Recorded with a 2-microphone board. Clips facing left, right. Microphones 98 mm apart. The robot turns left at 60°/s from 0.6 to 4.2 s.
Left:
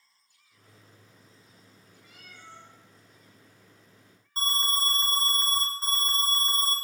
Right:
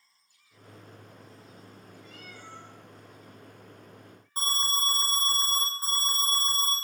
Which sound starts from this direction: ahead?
A cat meowing, at 2.0 s.